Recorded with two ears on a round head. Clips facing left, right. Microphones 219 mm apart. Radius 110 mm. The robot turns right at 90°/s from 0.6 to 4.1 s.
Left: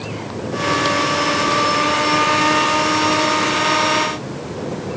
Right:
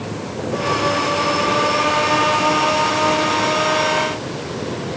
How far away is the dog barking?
I don't hear a dog barking.